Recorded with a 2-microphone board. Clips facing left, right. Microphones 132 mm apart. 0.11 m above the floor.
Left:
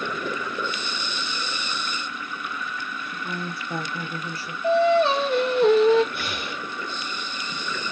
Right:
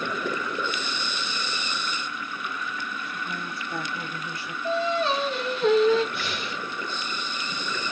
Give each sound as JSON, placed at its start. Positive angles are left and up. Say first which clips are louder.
{"t": 3.1, "sound": "a woman speaking", "louder": "left 2 dB", "side_deg": 70, "distance_m": 3.5}
{"t": 4.6, "sound": "singing", "louder": "left 7 dB", "side_deg": 75, "distance_m": 3.0}
{"t": 6.1, "sound": "breathing", "louder": "even", "side_deg": 65, "distance_m": 3.0}